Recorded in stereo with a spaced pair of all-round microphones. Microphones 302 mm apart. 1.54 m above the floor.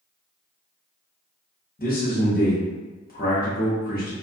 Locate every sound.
1.8 s a man speaking: 30° left (ahead or behind), 0.8 m